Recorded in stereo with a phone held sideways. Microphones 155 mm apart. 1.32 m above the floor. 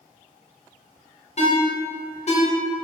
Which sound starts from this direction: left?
A ringtone, at 1.4 s.